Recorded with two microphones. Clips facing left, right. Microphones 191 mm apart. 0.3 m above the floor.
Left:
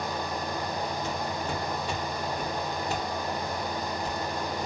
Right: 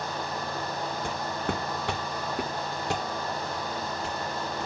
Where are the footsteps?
50° right (ahead or behind), 0.9 m; by 4.7 s 80° right, 2.5 m.